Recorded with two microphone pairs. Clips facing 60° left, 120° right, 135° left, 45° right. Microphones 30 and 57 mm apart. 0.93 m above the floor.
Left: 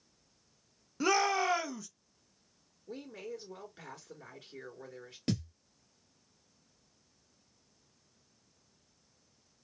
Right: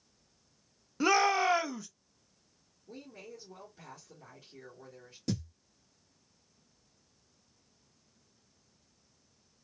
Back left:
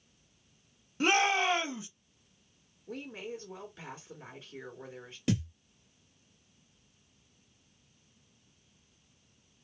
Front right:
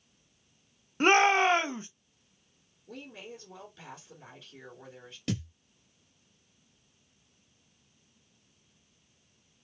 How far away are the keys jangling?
I don't hear keys jangling.